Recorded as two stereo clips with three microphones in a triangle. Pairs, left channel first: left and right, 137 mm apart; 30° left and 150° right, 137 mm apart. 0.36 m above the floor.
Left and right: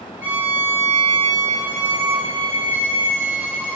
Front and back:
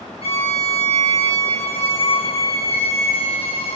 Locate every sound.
0.2 s a violin: 15° right, 3 m